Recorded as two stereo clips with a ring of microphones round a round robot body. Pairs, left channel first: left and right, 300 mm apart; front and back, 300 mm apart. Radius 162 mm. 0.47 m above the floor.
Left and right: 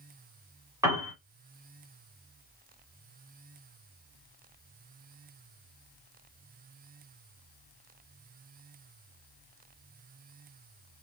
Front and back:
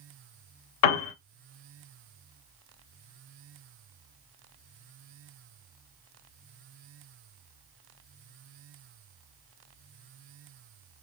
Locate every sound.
0.8 s a piano: 10° right, 0.9 m